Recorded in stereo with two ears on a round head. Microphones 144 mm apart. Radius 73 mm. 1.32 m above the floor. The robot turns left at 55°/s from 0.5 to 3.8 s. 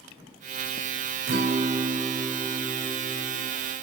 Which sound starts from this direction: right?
A guitar, at 1.3 s.